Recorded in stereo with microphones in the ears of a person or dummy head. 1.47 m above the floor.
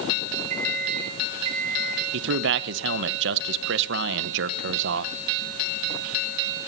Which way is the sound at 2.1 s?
75° right (ahead or behind).